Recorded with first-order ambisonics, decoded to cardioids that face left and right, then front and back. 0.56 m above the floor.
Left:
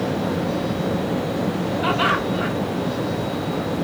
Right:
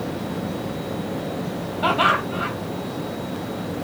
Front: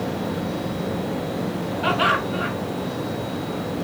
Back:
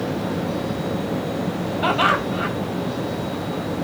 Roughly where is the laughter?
Behind.